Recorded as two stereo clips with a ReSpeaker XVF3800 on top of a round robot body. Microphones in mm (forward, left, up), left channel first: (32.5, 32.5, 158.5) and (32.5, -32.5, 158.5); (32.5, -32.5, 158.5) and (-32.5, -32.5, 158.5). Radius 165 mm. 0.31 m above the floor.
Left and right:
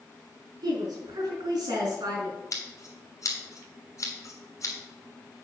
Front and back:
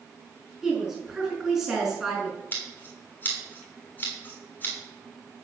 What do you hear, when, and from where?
0.6 s a woman speaking: 95° right, 5.5 m
2.5 s scissors: 60° left, 3 m